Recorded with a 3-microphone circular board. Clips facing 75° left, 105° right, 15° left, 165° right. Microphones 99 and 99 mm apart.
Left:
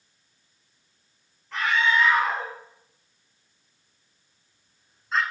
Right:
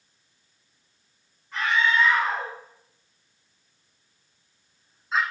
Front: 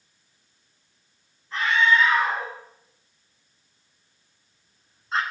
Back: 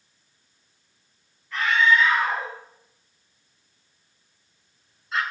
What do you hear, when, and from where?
1.5 s a scream: 75° left, 3 m; by 5.2 s 25° right, 1.6 m